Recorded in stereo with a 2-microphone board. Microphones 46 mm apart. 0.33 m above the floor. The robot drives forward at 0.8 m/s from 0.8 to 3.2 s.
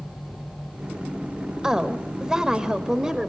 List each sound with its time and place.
1.6 s a woman speaking: 10° right (ahead or behind), 1.3 m